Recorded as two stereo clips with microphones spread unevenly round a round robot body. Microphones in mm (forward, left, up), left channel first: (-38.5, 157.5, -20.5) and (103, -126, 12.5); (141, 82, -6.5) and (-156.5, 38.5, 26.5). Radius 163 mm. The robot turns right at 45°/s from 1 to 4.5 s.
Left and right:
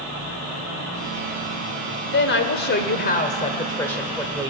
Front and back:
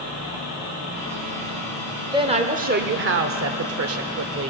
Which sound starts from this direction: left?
A woman speaking, at 2.1 s.